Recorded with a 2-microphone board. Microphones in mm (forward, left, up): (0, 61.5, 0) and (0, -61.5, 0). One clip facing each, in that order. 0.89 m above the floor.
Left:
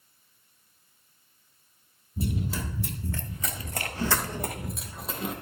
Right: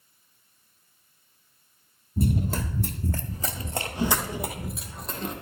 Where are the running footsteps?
50° right (ahead or behind), 1.4 m; by 5.3 s 10° left (ahead or behind), 1.7 m.